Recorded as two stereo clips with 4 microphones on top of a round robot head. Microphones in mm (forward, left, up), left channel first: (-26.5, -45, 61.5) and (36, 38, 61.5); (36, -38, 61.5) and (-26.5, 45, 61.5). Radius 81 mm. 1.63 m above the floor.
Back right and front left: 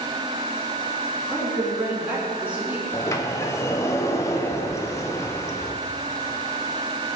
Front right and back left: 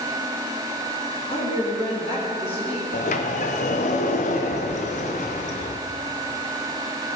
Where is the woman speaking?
25° right, 3.5 m.